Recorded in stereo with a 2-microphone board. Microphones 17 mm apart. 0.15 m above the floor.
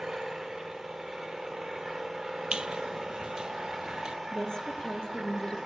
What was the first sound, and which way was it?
An engine running, 40° right (ahead or behind).